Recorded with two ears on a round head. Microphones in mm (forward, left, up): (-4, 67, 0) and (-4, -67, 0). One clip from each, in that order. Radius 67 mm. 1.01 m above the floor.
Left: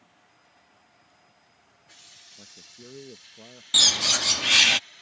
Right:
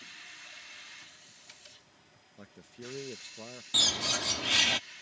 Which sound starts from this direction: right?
A man speaking, at 2.4 s.